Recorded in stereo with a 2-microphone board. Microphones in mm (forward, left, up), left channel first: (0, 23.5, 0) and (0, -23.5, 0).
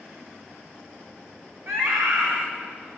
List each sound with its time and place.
1.7 s a scream: 75° right (ahead or behind), 9.5 m